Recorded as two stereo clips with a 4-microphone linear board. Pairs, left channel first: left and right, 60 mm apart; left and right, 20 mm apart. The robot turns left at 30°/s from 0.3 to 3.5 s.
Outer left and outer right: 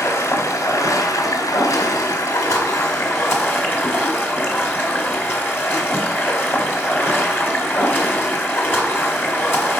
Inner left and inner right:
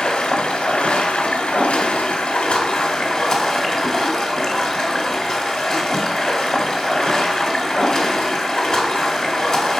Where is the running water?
135° left, 2 m; by 9.8 s 40° left, 2 m.